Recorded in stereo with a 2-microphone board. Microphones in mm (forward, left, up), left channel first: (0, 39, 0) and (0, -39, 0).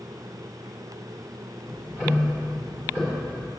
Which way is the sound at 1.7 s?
25° right (ahead or behind).